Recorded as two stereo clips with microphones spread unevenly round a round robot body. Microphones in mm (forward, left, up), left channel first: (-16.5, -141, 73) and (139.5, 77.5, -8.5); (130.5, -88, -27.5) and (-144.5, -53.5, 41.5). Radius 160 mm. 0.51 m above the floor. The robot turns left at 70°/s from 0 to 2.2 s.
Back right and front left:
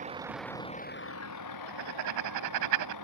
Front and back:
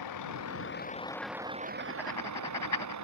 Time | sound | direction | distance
0.0 | a vehicle | 10° right | ?
1.7 | writing | 110° left | ?